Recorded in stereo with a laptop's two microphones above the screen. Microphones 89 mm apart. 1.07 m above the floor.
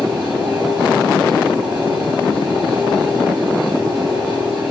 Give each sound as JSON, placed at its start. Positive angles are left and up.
{"t": 0.0, "sound": "a fan", "side_deg": -30, "distance_m": 5.0}